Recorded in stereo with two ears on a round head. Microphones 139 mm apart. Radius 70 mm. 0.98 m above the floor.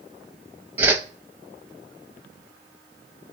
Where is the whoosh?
10° right (ahead or behind), 0.7 m.